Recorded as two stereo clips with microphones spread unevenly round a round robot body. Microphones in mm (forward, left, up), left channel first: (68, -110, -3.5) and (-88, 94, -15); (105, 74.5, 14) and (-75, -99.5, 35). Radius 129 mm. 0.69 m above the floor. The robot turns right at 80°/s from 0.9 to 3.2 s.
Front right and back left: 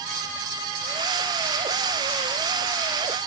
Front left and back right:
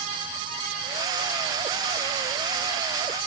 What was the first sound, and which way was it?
Only background noise.